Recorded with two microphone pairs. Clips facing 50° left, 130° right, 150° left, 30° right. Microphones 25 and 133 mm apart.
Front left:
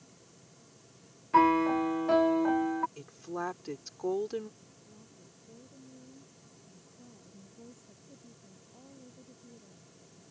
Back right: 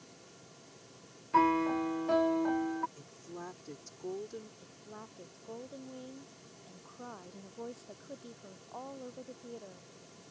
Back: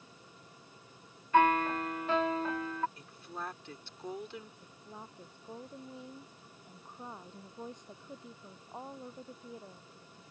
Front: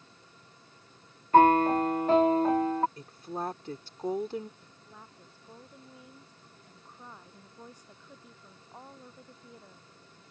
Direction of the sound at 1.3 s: 25° right.